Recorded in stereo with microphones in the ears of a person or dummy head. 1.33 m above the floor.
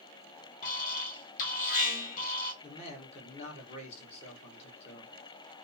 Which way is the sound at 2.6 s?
40° left (ahead or behind).